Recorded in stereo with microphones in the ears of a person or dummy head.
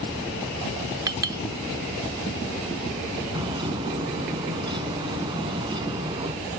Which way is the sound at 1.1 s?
25° right (ahead or behind).